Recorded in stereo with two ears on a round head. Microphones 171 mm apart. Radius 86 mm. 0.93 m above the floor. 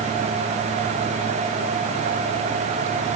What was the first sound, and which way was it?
Only background noise.